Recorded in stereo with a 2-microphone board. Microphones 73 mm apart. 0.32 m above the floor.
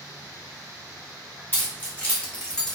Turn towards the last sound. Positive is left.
turn(degrees=5)  # may be behind; listen again after turning